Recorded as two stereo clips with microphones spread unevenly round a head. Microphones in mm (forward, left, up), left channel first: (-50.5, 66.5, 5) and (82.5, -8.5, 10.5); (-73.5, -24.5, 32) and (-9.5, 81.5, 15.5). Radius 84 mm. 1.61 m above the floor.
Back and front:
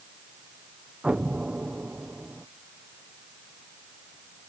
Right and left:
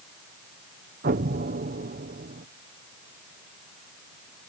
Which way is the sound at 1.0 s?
55° left.